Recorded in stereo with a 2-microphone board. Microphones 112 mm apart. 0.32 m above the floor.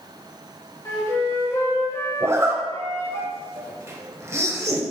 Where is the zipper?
25° right (ahead or behind), 0.8 m.